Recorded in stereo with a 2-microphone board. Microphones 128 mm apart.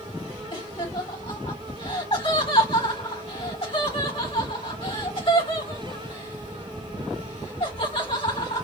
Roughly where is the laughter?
Left.